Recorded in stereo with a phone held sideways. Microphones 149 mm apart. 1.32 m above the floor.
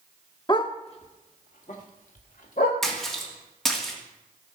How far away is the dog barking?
About 0.9 m.